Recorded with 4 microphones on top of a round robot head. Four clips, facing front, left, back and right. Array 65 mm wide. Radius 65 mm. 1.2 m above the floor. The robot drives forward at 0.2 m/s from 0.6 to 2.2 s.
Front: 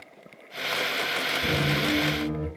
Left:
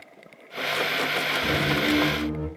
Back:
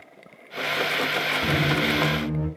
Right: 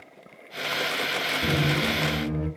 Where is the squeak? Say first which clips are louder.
Even, back 2 dB; 105° right, 1.9 m; by 2.5 s 110° right, 2.0 m.